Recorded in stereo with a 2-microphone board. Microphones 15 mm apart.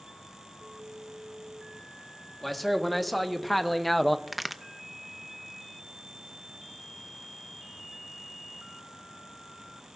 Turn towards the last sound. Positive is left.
turn(degrees=0)  # may be behind; listen again after turning